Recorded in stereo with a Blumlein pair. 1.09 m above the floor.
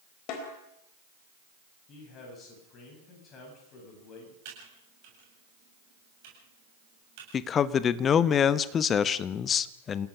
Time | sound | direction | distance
0.3 | a snare drum | 40° left | 4 m
1.9 | a man speaking | 30° left | 9 m
4.5 | typing on a keyboard | 45° right | 8 m
7.3 | a man speaking | 25° left | 0.9 m